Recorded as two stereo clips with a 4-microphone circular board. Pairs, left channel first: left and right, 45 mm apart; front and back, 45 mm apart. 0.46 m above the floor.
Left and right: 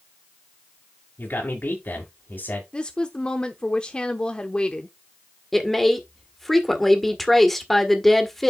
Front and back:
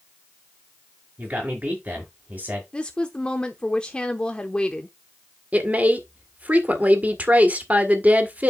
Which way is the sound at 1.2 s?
125° left.